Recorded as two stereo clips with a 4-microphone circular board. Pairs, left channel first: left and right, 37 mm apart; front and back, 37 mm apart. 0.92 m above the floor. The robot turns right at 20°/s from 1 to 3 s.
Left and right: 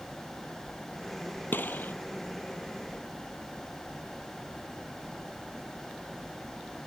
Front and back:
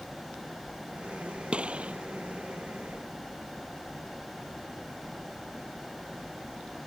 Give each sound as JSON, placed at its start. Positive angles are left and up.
{"t": 1.5, "sound": "a gunshot", "azimuth_deg": 120}